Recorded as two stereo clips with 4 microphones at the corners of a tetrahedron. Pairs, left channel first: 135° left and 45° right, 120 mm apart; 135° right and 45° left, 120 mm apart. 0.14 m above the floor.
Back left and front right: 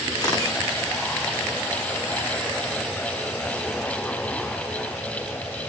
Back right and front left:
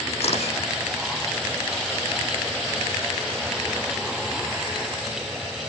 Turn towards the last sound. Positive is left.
turn(degrees=-165)